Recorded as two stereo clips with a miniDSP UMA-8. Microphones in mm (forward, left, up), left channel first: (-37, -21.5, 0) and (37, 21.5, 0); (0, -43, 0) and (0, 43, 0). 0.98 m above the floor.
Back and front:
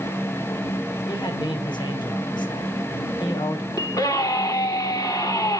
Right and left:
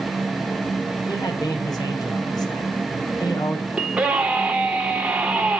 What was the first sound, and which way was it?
A man speaking, 125° right.